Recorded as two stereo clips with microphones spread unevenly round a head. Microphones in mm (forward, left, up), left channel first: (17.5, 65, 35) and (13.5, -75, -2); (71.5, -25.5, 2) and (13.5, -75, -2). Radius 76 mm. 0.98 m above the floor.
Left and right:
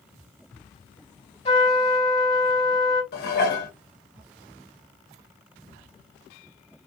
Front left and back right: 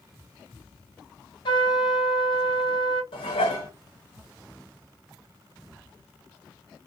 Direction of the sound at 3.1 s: 75° left.